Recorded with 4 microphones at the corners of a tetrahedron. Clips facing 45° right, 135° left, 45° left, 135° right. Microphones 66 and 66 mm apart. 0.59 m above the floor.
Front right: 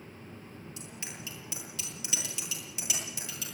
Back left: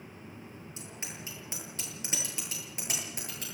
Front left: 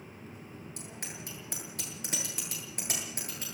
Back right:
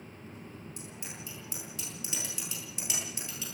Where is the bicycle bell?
75° left, 9.5 m; by 3.5 s 90° left, 11 m.